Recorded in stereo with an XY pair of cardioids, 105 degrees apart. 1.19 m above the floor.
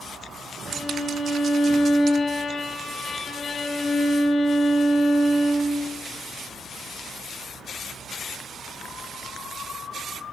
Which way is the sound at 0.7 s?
55° left.